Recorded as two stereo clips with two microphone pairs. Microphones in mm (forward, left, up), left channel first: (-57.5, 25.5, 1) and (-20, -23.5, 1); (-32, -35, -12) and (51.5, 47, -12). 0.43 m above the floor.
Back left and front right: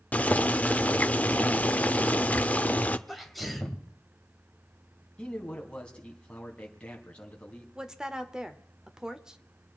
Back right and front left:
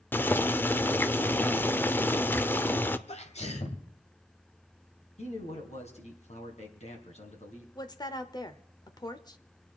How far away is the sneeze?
About 2 m.